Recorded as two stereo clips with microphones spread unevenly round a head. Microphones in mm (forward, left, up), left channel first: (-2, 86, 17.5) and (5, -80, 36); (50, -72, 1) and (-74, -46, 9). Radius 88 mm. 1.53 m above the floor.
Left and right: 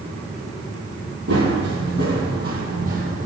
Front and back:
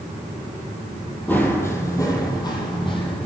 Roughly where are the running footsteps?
Right.